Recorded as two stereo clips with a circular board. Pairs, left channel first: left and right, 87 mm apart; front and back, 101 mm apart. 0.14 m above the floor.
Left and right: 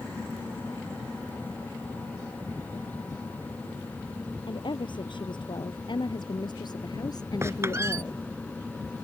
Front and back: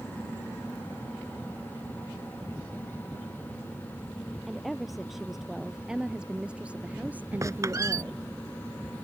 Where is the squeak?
135° right.